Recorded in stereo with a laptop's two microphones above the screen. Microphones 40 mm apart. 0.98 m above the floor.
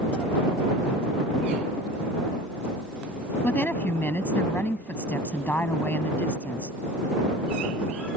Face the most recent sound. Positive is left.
turn(degrees=50)  # may be behind; listen again after turning